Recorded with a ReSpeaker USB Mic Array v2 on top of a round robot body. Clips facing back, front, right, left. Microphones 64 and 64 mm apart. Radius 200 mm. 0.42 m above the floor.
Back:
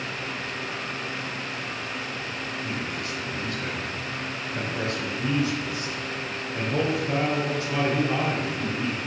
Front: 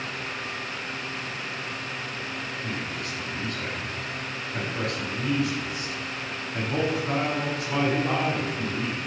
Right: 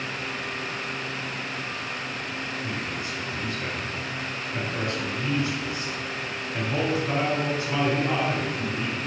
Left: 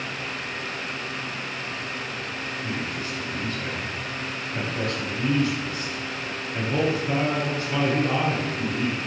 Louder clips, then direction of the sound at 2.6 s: Back 1 dB, left 1 dB; 15° right.